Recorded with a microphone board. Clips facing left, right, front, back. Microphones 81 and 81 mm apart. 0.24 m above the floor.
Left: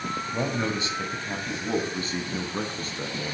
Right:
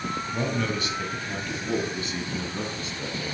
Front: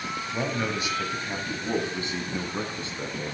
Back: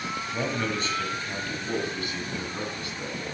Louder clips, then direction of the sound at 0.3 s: Even, front 1 dB; 75° left.